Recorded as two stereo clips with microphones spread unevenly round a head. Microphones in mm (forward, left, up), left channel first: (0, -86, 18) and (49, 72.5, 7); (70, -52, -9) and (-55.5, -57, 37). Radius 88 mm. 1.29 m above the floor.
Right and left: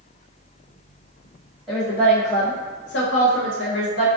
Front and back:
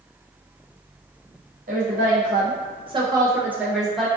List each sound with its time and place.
1.7 s a woman speaking: 165° left, 1.1 m; by 4.1 s 90° right, 1.2 m